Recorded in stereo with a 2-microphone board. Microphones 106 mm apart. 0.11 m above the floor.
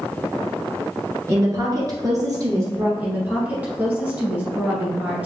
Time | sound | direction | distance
1.3 | a woman speaking | 30° right (ahead or behind) | 1.5 m
3.0 | a woman speaking | 15° right (ahead or behind) | 1.4 m